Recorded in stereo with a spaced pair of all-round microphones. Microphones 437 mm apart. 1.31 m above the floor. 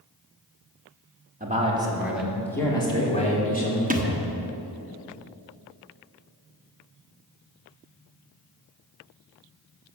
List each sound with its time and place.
1.4 s a man speaking: 20° right (ahead or behind), 2 m; by 4.9 s 30° left (ahead or behind), 4 m
3.9 s a thud: 20° right (ahead or behind), 0.9 m